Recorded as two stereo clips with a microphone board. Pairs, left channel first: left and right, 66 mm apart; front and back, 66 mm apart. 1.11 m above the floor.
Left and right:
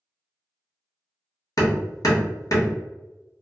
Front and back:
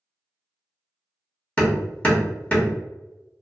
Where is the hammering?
65° left, 0.9 m.